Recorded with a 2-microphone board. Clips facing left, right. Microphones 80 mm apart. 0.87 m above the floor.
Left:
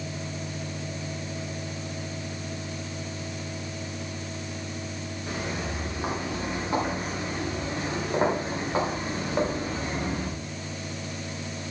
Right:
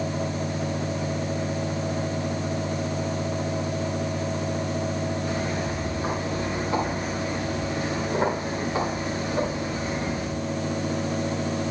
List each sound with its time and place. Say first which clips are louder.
5.3 s footsteps: right 5 dB; 15° left (ahead or behind), 9 m; by 10.3 s 35° left (ahead or behind), 8.5 m